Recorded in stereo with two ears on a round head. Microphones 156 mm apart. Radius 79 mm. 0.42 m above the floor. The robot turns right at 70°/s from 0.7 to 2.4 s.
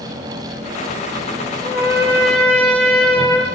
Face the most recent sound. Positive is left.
turn(degrees=-15)